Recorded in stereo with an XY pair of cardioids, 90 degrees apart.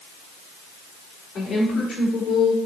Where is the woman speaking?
60° left, 4 m.